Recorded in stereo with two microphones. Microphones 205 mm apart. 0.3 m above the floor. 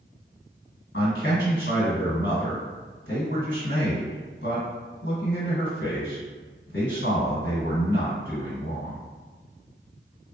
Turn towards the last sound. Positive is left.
turn(degrees=65)  # may be behind; listen again after turning